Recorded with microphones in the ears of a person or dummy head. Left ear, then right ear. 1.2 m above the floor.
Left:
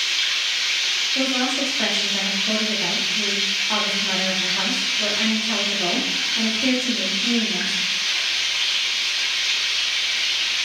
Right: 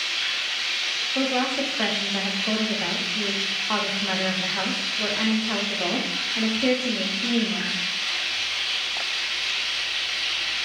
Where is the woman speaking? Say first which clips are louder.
Left 2 dB; 25° right (ahead or behind), 0.7 m.